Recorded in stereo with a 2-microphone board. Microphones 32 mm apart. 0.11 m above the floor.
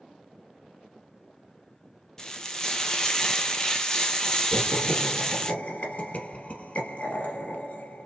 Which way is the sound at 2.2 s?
15° left (ahead or behind).